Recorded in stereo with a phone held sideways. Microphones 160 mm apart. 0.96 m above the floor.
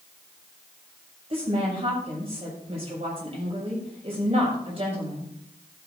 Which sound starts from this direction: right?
A woman speaking, at 1.3 s.